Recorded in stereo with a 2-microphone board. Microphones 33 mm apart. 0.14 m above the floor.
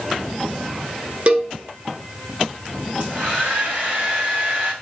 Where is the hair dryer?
70° right (ahead or behind), 4 m.